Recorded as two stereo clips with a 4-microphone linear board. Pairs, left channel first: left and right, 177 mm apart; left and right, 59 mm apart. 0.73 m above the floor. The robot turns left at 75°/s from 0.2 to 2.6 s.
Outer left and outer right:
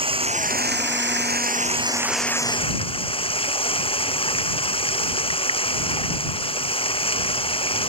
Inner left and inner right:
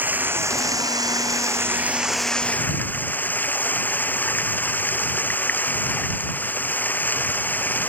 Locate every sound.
0.0 s running water: 30° right; by 7.9 s 150° left